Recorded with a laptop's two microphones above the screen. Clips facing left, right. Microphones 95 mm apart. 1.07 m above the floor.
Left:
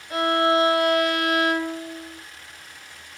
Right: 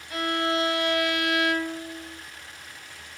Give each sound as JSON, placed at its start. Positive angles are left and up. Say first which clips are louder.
{"t": 0.1, "sound": "a violin", "louder": "left 6 dB", "side_deg": 35, "distance_m": 0.9}